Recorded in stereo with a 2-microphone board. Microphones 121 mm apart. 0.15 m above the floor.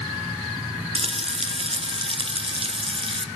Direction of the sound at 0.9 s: 50° right (ahead or behind).